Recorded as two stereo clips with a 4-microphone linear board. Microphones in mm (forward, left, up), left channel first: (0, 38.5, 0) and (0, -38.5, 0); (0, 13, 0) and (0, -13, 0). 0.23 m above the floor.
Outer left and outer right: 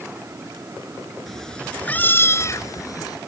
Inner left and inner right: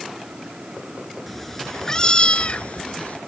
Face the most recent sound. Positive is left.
turn(degrees=60)  # may be behind; listen again after turning